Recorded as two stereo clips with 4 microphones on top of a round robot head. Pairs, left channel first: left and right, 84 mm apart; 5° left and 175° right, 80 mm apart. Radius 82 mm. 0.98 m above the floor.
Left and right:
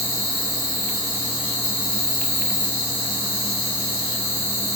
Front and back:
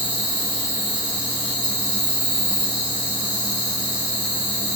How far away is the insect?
About 2 m.